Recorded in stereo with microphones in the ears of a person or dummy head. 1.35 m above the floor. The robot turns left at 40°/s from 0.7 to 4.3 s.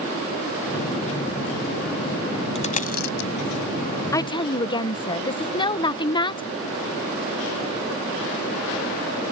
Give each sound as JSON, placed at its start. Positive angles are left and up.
{"t": 2.5, "sound": "a dropped coin", "side_deg": 30}
{"t": 4.1, "sound": "a woman speaking", "side_deg": 15}